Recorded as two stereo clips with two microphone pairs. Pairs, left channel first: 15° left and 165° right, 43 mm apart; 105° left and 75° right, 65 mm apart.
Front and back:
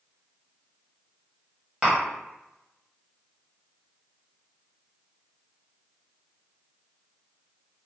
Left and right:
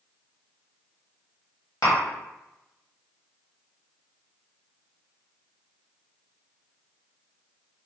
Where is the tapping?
120° left, 1.2 m.